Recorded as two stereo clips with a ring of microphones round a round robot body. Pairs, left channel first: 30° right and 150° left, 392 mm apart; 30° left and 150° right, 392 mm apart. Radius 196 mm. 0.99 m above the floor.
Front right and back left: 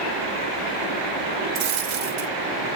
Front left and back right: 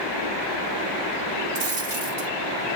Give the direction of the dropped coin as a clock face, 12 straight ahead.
6 o'clock.